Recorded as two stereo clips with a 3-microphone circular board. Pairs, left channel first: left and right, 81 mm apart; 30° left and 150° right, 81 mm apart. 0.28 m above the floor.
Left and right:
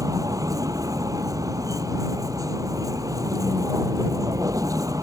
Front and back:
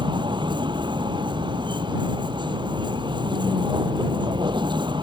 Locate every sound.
0.0 s a vehicle: 135° right